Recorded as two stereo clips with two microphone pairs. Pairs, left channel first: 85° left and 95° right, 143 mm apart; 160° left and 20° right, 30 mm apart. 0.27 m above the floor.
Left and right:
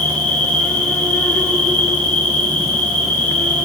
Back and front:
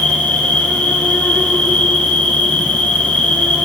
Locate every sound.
0.0 s an insect: 160° left, 2.5 m